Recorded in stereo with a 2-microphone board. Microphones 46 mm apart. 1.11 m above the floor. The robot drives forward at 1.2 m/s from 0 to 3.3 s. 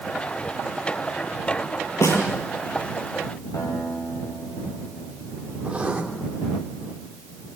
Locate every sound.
2.0 s a snare drum: 75° left (ahead or behind), 7 m; by 2.2 s 70° left (ahead or behind), 7 m
3.5 s a guitar: 75° left (ahead or behind), 7 m
5.6 s writing: 25° right (ahead or behind), 3 m